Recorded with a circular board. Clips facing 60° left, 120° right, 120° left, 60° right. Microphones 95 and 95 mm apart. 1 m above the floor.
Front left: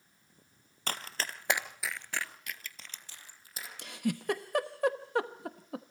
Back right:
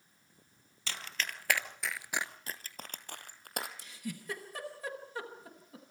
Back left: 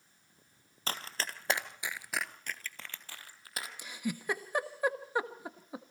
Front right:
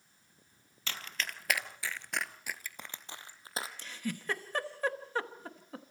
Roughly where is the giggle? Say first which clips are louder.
Front left 9 dB, back left 2 dB; ahead left.